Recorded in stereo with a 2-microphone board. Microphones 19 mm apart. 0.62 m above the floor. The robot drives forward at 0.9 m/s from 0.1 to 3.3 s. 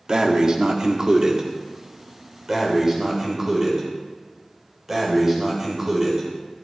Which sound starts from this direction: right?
Breathing, at 0.1 s.